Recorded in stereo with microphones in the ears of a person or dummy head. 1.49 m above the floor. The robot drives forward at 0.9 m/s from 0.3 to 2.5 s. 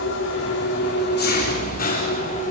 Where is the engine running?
65° left (ahead or behind), 3.5 m; by 2.5 s 45° left (ahead or behind), 4.5 m.